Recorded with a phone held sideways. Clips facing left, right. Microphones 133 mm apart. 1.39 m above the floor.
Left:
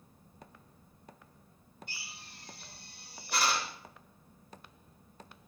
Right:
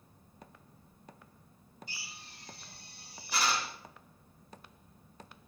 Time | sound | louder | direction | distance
1.9 | a drill | even | 65° left (ahead or behind) | 2 m